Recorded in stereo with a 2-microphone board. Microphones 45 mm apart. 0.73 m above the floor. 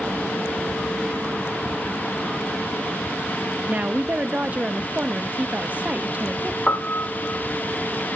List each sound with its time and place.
3.7 s a woman speaking: 30° right (ahead or behind), 0.5 m
6.7 s a piano: 30° left (ahead or behind), 0.8 m